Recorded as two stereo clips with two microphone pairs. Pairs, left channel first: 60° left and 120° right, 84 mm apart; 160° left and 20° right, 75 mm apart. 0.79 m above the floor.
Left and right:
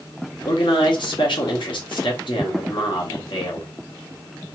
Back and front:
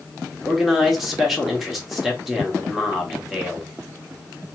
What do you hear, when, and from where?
0.5 s a man speaking: 65° left, 1.7 m